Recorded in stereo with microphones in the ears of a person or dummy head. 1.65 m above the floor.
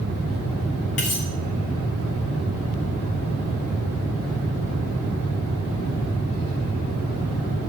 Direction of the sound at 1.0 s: 30° left (ahead or behind).